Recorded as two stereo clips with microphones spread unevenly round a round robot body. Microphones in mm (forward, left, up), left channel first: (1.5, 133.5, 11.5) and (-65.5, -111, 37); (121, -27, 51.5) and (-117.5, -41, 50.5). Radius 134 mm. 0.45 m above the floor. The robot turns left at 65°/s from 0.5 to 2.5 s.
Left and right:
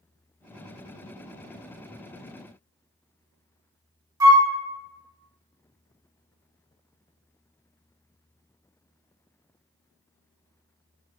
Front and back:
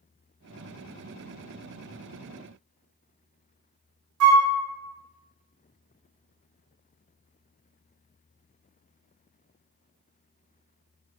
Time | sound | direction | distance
4.2 | a flute | straight behind | 0.9 m